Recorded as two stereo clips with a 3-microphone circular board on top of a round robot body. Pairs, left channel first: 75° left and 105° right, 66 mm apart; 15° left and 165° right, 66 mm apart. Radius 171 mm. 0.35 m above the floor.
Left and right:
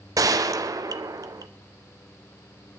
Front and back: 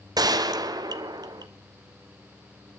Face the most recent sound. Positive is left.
turn(degrees=-140)